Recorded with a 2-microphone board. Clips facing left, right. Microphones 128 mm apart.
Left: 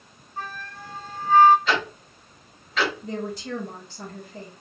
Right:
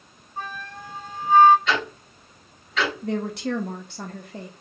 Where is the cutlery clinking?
I don't hear cutlery clinking.